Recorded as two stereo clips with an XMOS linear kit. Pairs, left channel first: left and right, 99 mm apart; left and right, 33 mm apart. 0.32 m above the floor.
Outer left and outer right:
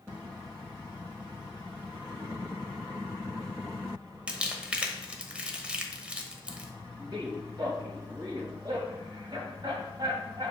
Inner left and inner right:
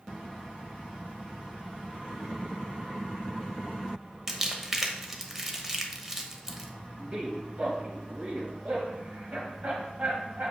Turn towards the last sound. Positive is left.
turn(degrees=-50)  # may be behind; listen again after turning